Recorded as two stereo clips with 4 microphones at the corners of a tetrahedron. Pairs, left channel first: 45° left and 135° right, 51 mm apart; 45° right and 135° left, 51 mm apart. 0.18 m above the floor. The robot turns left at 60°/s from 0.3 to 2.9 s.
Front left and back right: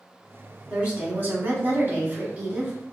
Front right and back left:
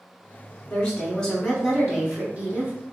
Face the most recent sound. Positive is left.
turn(degrees=140)